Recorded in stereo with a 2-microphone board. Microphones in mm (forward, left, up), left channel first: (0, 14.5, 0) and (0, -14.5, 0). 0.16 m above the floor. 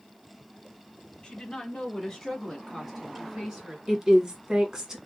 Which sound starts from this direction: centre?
A woman speaking, at 3.9 s.